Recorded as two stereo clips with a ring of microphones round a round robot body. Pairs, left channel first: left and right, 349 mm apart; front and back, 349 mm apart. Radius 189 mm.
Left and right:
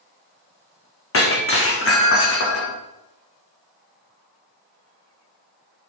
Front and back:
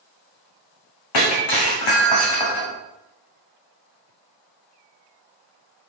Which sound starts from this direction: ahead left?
Breaking glass, at 1.1 s.